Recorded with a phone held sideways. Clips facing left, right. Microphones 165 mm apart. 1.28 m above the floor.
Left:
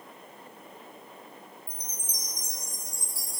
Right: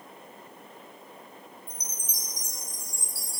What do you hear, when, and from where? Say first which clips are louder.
1.7 s a chime: even; 75° right (ahead or behind), 1.6 m